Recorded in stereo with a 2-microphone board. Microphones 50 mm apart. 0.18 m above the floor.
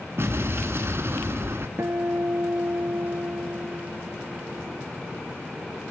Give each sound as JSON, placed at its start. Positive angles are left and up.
{"t": 0.2, "sound": "an explosion", "side_deg": -55, "distance_m": 1.4}
{"t": 1.8, "sound": "a guitar", "side_deg": -60, "distance_m": 0.8}